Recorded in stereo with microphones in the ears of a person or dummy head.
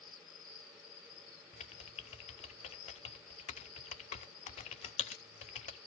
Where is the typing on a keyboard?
30° left (ahead or behind), 0.6 m.